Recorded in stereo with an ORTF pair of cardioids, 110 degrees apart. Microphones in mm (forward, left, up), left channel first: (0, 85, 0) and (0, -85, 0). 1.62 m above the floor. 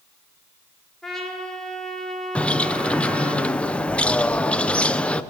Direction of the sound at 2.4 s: 5° left.